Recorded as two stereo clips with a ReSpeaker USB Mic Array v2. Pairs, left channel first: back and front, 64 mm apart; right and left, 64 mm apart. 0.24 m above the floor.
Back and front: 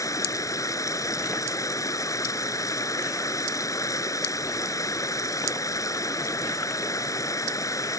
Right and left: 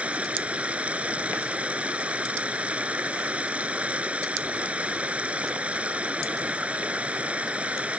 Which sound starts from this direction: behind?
Running water, at 0.0 s.